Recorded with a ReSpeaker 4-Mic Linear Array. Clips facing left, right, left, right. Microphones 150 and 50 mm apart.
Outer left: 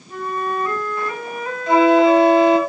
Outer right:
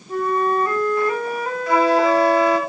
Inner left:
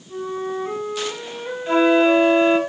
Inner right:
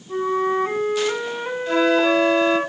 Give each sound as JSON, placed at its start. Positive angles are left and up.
{"t": 0.1, "sound": "a flute", "side_deg": -40, "distance_m": 2.0}
{"t": 1.7, "sound": "a flute", "side_deg": 25, "distance_m": 2.0}